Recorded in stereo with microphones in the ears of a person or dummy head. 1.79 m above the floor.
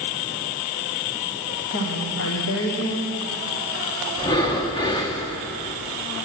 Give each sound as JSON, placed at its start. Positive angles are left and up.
{"t": 1.7, "sound": "a woman speaking", "side_deg": 65, "distance_m": 1.3}
{"t": 4.2, "sound": "breathing", "side_deg": 20, "distance_m": 1.0}